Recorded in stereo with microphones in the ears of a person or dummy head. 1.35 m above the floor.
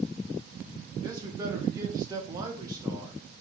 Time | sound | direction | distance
1.0 | a man speaking | 20° right (ahead or behind) | 1.0 m